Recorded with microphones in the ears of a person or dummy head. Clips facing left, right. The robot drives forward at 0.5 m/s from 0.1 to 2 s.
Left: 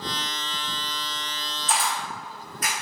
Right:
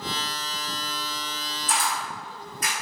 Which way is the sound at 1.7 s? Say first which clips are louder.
Left 1 dB; 35° left (ahead or behind).